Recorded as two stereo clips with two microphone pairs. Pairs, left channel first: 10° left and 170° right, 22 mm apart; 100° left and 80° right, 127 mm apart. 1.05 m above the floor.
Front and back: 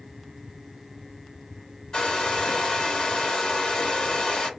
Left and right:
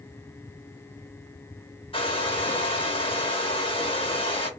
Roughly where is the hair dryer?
Ahead left.